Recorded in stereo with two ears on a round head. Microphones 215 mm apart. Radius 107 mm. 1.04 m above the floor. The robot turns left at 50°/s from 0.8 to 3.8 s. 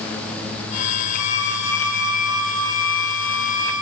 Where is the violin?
95° left, 4 m; by 3.7 s 35° right, 4 m.